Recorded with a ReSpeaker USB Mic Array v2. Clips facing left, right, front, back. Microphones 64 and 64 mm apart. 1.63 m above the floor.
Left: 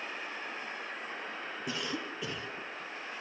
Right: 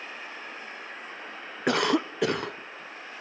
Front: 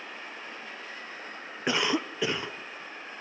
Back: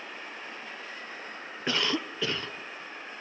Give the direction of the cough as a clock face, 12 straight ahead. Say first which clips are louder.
Right 15 dB, front 2 dB; 2 o'clock.